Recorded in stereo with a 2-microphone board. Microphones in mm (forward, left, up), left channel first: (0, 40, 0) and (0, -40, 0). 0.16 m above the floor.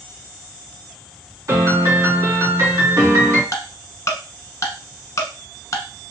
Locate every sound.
1.5 s a piano: 45° right (ahead or behind), 2.5 m
3.5 s ticking: 40° left (ahead or behind), 0.9 m